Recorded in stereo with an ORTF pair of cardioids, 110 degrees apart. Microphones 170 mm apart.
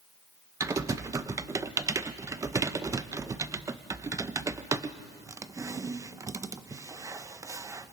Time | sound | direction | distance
0.6 | typing on a keyboard | 20° right | 0.6 m